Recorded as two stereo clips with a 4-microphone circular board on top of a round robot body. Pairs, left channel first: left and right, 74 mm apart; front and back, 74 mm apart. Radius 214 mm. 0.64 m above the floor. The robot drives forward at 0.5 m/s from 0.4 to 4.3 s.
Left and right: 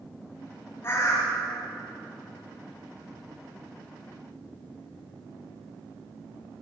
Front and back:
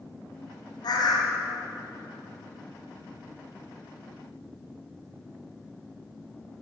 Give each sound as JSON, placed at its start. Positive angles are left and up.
{"t": 0.8, "sound": "a bird", "azimuth_deg": 30, "distance_m": 1.3}